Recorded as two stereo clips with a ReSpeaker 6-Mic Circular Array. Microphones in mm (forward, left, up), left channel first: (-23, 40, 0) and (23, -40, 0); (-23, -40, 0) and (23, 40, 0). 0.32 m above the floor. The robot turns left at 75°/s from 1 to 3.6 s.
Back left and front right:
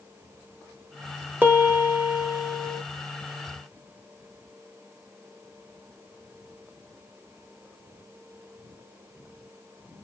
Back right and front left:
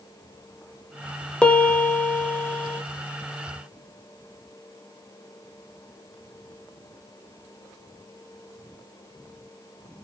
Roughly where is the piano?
Ahead right.